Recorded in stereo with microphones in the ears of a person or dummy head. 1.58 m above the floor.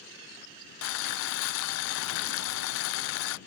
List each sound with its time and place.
0.8 s boiling: 75° left (ahead or behind)